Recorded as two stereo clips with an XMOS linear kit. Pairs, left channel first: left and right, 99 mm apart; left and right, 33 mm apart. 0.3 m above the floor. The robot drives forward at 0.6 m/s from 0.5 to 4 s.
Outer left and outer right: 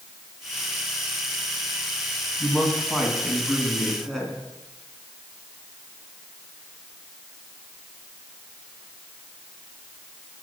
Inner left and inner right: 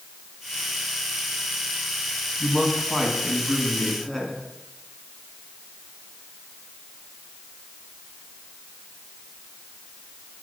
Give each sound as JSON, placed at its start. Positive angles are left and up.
{"t": 2.4, "sound": "a man speaking", "side_deg": 5, "distance_m": 1.6}